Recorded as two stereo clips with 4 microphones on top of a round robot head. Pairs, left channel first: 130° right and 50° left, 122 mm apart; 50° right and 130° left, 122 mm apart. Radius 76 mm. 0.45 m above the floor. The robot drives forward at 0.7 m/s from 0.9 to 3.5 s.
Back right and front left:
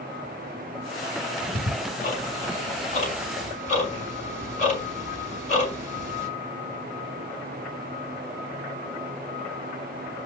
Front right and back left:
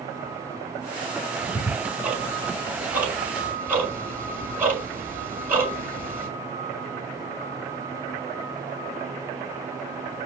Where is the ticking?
145° right, 3.5 m; by 6.3 s 155° right, 5 m.